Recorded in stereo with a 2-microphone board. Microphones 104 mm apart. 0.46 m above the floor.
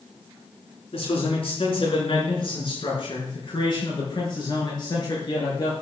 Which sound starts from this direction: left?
A man speaking, at 0.9 s.